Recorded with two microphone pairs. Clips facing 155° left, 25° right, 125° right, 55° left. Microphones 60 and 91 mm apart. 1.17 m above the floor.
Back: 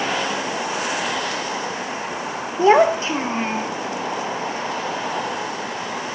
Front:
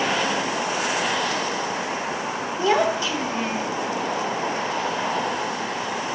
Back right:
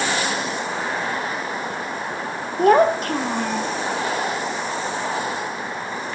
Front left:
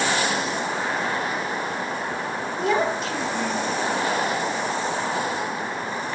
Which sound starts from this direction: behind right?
A child speaking, at 2.6 s.